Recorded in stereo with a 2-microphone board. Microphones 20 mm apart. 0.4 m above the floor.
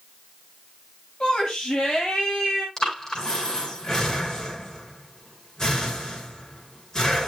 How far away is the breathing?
About 4 m.